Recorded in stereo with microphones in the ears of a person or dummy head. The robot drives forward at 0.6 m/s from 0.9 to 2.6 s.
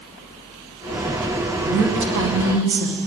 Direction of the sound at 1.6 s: 65° right (ahead or behind).